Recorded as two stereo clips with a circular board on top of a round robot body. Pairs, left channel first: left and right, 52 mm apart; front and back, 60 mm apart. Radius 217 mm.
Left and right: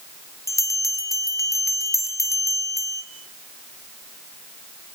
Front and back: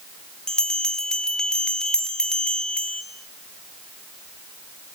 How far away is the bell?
About 2.5 m.